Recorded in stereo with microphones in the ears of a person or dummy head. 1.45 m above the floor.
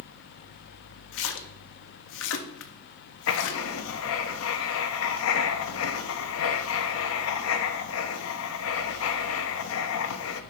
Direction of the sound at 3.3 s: 70° left (ahead or behind).